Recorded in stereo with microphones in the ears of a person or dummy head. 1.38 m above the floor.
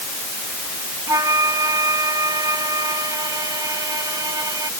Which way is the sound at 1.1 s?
15° right (ahead or behind).